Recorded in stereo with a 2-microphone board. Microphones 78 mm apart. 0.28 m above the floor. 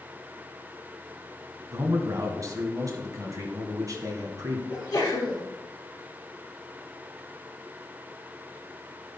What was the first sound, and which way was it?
A man speaking, 45° right (ahead or behind).